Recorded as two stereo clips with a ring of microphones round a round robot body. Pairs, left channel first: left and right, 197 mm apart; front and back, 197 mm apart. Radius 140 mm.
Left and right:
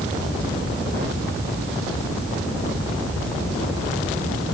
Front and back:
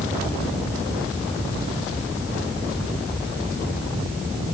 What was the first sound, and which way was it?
Only background noise.